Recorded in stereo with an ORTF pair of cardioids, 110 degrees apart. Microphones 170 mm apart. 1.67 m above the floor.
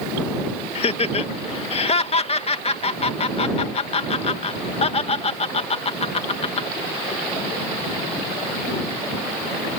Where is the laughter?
35° left.